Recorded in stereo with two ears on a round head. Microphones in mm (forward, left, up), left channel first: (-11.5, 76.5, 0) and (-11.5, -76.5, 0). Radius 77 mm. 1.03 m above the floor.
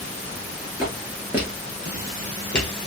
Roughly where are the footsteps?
Centre.